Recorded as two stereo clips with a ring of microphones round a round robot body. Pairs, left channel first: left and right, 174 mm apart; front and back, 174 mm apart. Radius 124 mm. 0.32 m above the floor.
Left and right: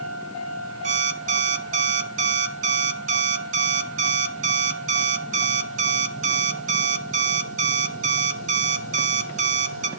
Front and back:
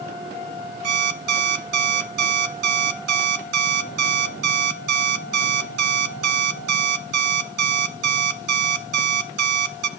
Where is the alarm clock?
145° right, 0.6 m.